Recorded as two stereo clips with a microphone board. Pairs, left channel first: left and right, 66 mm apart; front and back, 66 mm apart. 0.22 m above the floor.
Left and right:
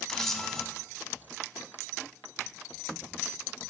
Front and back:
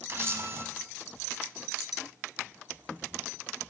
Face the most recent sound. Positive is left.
turn(degrees=170)